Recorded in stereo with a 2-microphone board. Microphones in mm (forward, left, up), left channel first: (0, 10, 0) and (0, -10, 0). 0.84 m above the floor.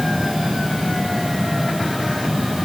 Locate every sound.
Only background noise.